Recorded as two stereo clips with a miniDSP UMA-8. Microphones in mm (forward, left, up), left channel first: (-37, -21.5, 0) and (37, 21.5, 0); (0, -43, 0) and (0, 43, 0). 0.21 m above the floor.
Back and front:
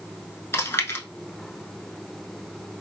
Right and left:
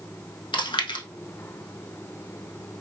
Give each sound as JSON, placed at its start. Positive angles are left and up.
{"t": 0.5, "sound": "chewing", "azimuth_deg": -90, "distance_m": 0.6}